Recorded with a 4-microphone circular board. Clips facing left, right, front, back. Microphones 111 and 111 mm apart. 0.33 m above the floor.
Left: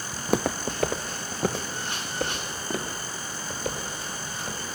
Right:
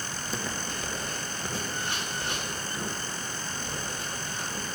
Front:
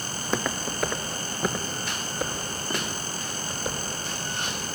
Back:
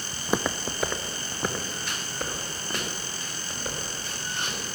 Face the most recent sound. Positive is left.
turn(degrees=80)